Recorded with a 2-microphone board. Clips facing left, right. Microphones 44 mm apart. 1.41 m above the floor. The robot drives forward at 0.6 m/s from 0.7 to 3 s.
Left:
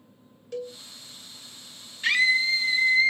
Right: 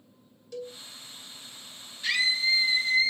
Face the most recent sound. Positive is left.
turn(degrees=45)  # may be behind; listen again after turning